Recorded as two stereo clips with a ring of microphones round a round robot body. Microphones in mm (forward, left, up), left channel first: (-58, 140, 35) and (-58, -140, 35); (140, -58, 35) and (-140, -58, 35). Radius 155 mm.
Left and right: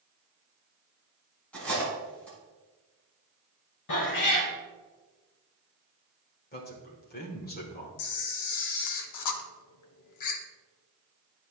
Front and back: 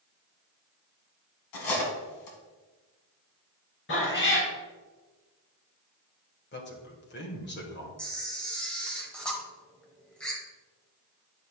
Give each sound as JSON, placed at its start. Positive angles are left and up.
{"t": 1.5, "sound": "cutlery clinking", "azimuth_deg": 5, "distance_m": 1.9}
{"t": 3.9, "sound": "a cat meowing", "azimuth_deg": 55, "distance_m": 2.5}
{"t": 6.5, "sound": "a man speaking", "azimuth_deg": 40, "distance_m": 1.5}
{"t": 8.0, "sound": "a camera shutter", "azimuth_deg": 85, "distance_m": 0.8}